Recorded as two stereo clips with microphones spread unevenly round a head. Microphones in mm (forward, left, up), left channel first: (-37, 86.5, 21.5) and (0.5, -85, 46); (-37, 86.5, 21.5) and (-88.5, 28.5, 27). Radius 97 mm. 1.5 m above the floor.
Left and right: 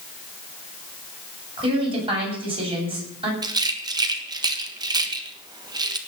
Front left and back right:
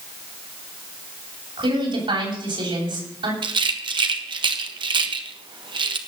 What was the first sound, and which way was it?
A woman speaking, 140° right.